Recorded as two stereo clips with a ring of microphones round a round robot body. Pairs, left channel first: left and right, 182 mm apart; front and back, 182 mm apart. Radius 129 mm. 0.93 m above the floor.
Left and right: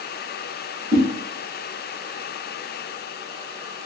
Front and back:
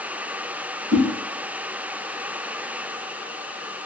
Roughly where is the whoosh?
Behind right.